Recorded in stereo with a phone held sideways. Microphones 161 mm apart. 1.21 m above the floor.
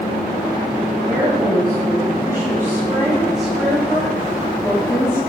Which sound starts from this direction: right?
A woman speaking, at 1.1 s.